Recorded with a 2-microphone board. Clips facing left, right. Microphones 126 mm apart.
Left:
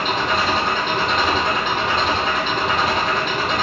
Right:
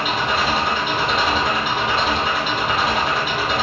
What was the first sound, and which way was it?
An engine running, 5° right (ahead or behind).